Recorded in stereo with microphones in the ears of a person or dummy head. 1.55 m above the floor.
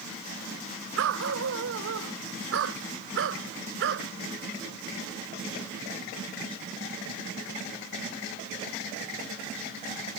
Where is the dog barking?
75° right (ahead or behind); by 4.1 s 65° right (ahead or behind).